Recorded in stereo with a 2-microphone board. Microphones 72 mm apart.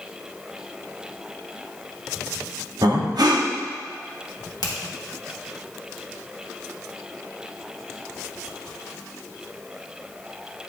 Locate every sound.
2.8 s breathing: 70° right (ahead or behind), 1.1 m
4.6 s a finger snap: 70° left (ahead or behind), 1.7 m